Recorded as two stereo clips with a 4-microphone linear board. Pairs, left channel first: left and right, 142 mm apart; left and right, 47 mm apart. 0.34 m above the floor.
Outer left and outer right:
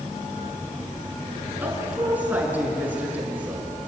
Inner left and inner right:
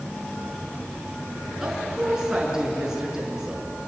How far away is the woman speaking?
About 5.5 m.